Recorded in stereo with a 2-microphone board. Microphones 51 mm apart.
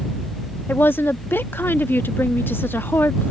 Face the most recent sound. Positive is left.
turn(degrees=45)  # may be behind; listen again after turning